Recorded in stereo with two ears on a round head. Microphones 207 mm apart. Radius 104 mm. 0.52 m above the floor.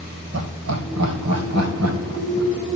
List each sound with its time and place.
0.3 s laughter: 65° right (ahead or behind), 2 m; by 2.5 s 60° right (ahead or behind), 3.5 m